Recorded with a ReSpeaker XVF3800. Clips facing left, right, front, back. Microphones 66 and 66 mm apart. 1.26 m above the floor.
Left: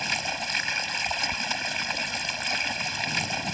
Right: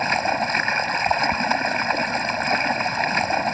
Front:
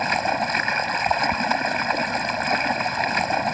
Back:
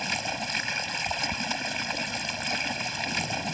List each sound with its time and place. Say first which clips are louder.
0.0 s running water: right 10 dB, front 10 dB; 40° right